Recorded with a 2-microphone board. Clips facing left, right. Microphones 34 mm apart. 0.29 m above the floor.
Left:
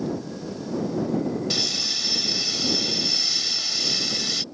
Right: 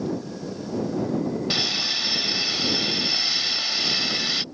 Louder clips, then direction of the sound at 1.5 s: Right 2 dB; 25° right (ahead or behind).